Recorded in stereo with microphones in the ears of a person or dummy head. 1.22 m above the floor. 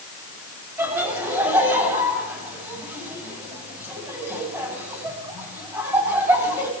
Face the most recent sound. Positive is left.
turn(degrees=-15)  # may be behind; listen again after turning